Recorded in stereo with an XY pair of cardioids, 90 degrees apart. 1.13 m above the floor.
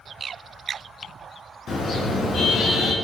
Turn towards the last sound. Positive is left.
turn(degrees=70)